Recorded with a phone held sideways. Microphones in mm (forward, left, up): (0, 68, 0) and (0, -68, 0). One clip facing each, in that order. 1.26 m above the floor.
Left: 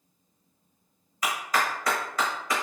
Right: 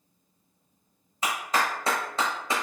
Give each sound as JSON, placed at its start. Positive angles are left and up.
{"t": 1.2, "sound": "a clap", "side_deg": -25, "distance_m": 0.9}